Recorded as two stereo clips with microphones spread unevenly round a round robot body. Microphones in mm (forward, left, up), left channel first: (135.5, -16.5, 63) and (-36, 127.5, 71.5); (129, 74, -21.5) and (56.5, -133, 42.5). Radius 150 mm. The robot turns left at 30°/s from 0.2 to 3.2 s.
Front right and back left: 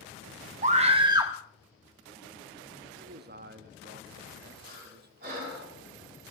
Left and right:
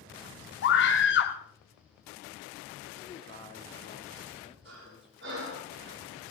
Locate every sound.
0.6 s a scream: 85° left, 1.1 m; by 1.3 s 60° left, 1.1 m
3.0 s a man speaking: 120° left, 1.5 m; by 5.7 s 115° left, 1.5 m
4.7 s breathing: 165° right, 8 m